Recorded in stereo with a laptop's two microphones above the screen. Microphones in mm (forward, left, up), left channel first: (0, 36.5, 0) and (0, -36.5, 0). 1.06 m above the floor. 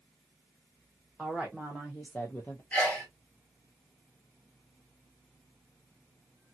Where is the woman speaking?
Centre (ahead or behind), 1.0 m; by 2.6 s 40° left (ahead or behind), 0.5 m.